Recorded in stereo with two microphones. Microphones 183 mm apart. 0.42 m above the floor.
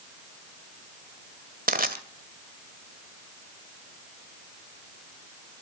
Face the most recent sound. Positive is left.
turn(degrees=-50)  # may be behind; listen again after turning